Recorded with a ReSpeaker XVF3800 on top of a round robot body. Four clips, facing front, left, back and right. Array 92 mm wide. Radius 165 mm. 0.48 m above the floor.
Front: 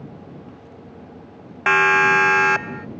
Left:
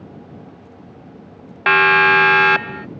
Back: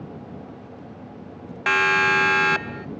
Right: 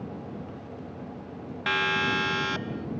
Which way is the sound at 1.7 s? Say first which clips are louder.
Left 14 dB, front 4 dB; 65° left.